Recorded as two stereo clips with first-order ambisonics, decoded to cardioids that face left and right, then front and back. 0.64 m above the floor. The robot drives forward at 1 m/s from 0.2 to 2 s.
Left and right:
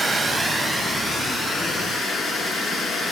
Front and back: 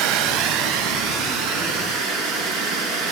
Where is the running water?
165° right, 1.2 m; by 3.1 s 175° right, 3 m.